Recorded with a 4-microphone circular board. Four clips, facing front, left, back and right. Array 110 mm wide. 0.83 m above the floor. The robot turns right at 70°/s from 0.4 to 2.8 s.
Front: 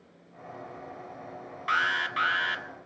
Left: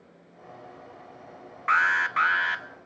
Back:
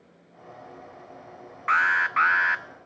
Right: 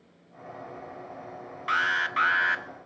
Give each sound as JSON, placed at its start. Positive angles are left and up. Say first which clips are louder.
{"t": 1.7, "sound": "an alarm", "louder": "left 4 dB, back 5 dB", "azimuth_deg": 135, "distance_m": 0.7}